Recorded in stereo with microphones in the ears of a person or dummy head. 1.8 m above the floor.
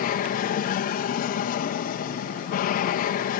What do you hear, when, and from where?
0.0 s an aircraft: 45° left (ahead or behind)